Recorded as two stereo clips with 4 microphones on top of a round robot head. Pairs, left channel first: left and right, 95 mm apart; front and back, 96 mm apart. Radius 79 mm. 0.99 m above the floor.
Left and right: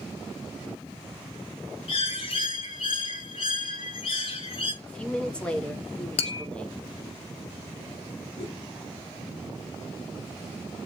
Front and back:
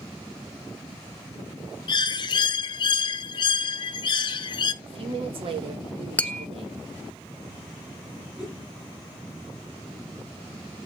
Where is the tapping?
75° left, 0.9 m.